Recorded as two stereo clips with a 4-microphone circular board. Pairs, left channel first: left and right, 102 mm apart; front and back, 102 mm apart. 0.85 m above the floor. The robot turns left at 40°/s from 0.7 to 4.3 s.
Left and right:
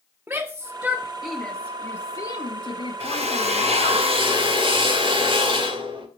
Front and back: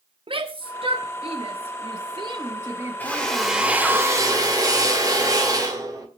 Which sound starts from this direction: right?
A drill, at 3.0 s.